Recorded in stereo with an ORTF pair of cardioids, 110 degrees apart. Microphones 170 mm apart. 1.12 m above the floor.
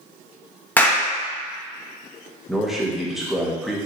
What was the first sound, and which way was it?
A clap, 10° left.